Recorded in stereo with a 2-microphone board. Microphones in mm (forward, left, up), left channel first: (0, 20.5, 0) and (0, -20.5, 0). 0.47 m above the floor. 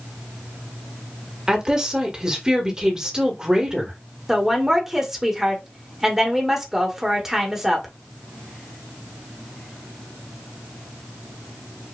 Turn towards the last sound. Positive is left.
turn(degrees=-10)  # may be behind; listen again after turning